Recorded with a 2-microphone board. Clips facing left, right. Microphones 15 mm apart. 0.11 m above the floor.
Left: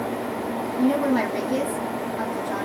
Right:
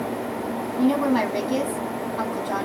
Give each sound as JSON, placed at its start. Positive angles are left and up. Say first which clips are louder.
{"t": 0.8, "sound": "a woman speaking", "louder": "right 1 dB", "side_deg": -25, "distance_m": 4.5}